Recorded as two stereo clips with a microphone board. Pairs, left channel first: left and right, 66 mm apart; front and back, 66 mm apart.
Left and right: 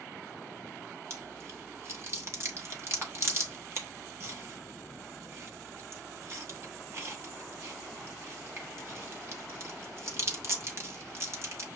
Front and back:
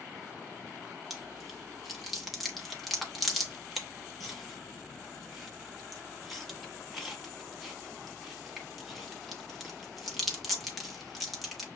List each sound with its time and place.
1.1 s chewing: 90° right, 1.0 m